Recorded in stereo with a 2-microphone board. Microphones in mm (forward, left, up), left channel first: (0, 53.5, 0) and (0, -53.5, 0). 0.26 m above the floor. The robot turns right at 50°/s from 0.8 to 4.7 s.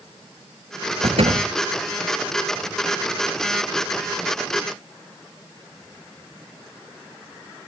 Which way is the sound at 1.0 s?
75° right (ahead or behind).